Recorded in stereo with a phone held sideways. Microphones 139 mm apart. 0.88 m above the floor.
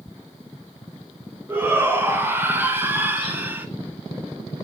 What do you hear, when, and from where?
1.5 s a shout: 15° right (ahead or behind), 4.5 m